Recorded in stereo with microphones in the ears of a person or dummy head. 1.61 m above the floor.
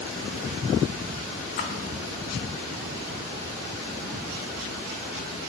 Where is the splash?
50° left (ahead or behind), 0.7 m.